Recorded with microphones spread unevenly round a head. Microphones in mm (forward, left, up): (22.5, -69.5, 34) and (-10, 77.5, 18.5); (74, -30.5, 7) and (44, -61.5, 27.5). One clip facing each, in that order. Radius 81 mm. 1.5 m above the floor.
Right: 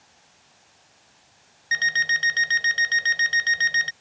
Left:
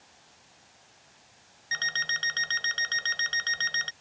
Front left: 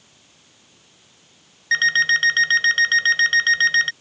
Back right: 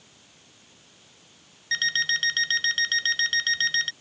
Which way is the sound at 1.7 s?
Straight ahead.